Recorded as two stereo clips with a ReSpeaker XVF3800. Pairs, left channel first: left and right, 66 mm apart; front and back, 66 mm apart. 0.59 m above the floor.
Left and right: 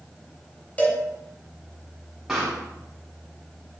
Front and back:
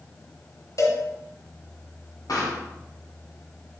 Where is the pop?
5° right, 3 m.